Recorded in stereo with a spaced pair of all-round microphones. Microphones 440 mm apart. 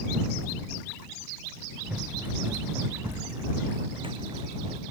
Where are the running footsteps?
Centre (ahead or behind); by 4.8 s 15° right (ahead or behind).